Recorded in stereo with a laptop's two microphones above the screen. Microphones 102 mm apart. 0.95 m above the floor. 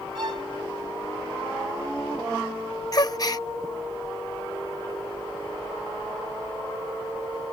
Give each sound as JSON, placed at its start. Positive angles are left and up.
{"t": 0.1, "sound": "a violin", "side_deg": -55}
{"t": 2.9, "sound": "a gasp", "side_deg": 35}